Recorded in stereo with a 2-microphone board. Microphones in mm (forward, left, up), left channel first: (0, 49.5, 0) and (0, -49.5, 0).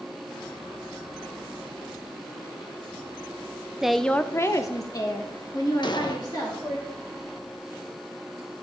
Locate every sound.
3.8 s a woman speaking: 5° right (ahead or behind), 0.5 m; by 6.8 s 40° left (ahead or behind), 2.5 m
5.8 s an explosion: 50° left (ahead or behind), 0.9 m